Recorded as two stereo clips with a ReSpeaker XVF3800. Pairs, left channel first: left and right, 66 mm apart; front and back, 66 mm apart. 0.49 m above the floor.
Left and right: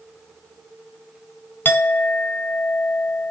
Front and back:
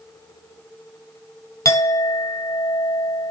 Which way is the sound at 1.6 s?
30° left.